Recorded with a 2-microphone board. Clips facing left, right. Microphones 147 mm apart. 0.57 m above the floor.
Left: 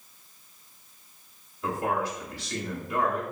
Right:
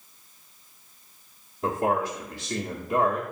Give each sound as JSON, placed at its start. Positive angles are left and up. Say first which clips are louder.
{"t": 1.6, "sound": "a man speaking", "louder": "right 3 dB", "side_deg": -45, "distance_m": 0.9}